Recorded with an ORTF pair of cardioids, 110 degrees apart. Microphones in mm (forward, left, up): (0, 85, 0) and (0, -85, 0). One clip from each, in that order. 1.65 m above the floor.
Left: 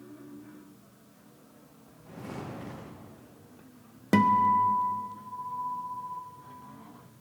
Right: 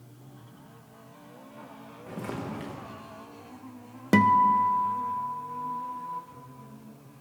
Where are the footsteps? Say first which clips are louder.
Right 5 dB; 70° right, 8.5 m.